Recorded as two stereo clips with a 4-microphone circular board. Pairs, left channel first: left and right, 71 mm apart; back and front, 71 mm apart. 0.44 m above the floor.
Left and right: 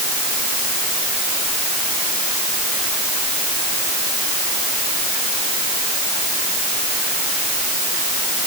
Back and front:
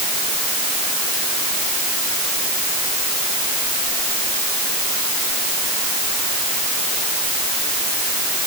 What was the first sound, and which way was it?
Only background noise.